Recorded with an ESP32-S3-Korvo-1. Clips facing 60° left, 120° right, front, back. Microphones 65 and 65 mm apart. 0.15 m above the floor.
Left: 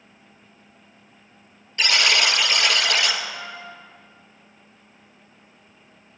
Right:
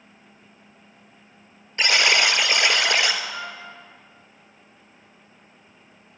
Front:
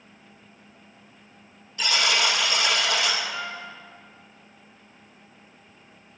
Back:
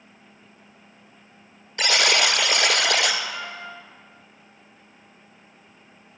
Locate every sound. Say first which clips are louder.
1.8 s a buzzer: right 1 dB, back 3 dB; 175° left, 0.7 m
3.3 s a trumpet: right 1 dB, front 1 dB; 100° right, 3 m